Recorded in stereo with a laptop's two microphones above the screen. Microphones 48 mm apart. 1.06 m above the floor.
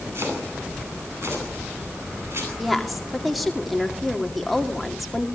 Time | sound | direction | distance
0.1 | chopping | 65° right (ahead or behind) | 10 m
2.6 | a woman speaking | centre (ahead or behind) | 2.5 m